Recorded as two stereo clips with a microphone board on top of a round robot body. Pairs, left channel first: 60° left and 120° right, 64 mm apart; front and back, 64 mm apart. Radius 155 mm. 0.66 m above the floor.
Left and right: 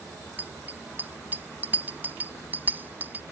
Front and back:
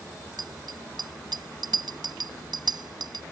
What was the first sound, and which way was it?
A bicycle bell, 175° left.